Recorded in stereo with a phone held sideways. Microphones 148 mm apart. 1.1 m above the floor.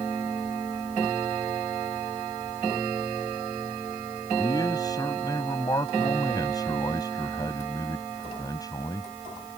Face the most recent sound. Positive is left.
turn(degrees=25)  # may be behind; listen again after turning